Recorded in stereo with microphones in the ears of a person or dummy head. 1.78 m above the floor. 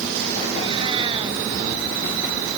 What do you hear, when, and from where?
0.5 s a cat meowing: 30° right (ahead or behind)